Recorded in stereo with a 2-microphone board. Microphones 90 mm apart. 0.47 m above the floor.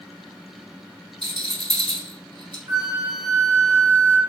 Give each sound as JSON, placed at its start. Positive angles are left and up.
{"t": 1.2, "sound": "a rattle", "side_deg": -60, "distance_m": 1.5}
{"t": 2.7, "sound": "a flute", "side_deg": -35, "distance_m": 1.5}